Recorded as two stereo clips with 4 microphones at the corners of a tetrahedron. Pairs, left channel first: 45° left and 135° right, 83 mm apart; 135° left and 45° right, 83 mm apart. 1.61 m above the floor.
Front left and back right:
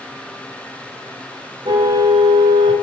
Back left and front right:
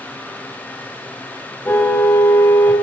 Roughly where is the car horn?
Behind.